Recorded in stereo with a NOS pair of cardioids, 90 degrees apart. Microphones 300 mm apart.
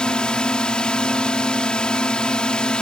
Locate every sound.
0.0 s a drone: 5° left